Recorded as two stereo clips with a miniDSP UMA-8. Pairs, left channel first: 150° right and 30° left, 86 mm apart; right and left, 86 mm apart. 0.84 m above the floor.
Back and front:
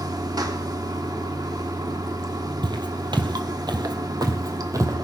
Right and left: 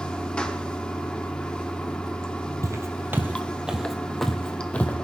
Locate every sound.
0.0 s running water: 10° right, 1.4 m
2.6 s footsteps: 45° left, 1.7 m; by 5.0 s 20° right, 2 m